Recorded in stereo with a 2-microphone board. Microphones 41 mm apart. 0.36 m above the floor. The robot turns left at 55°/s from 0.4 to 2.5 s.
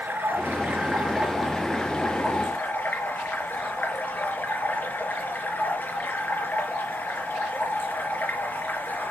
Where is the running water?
120° right, 4 m; by 9.1 s 125° left, 4 m.